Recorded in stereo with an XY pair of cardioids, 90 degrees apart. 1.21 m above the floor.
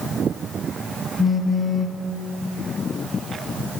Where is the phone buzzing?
30° left, 0.8 m.